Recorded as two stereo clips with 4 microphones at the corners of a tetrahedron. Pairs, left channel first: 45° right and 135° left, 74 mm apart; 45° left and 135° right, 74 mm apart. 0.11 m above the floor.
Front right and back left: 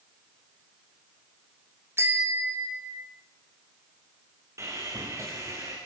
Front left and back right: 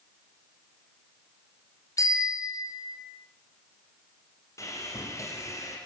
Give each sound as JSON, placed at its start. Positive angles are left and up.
{"t": 2.0, "sound": "a bicycle bell", "azimuth_deg": 85, "distance_m": 3.5}
{"t": 4.6, "sound": "sawing", "azimuth_deg": 90, "distance_m": 8.0}